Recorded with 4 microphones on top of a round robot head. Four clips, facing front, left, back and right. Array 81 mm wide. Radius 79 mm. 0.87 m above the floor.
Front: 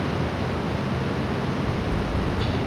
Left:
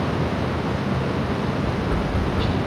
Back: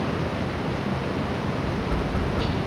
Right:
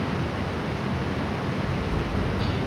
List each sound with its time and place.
1.6 s tapping: 120° left, 1.9 m